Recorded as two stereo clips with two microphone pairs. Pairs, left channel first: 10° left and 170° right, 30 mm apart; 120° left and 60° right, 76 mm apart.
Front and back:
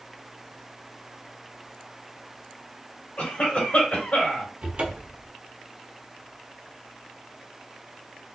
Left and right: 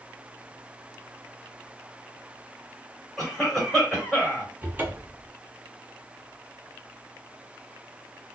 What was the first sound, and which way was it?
A cough, 35° left.